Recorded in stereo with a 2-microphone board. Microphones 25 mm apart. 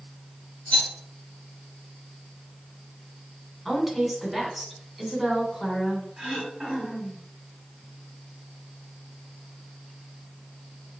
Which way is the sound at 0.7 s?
60° left (ahead or behind).